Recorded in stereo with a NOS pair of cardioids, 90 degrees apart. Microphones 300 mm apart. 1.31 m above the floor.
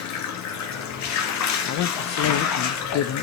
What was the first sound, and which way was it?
Running water, 65° left.